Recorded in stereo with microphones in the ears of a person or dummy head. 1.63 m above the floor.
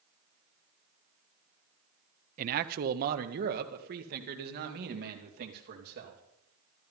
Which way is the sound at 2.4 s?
40° right (ahead or behind).